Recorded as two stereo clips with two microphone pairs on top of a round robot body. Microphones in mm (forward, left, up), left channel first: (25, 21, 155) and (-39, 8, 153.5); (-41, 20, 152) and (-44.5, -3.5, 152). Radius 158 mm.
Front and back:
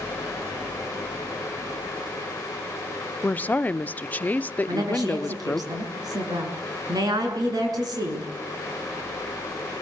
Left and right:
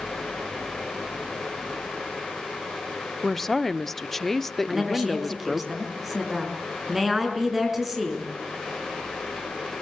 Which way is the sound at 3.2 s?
15° left.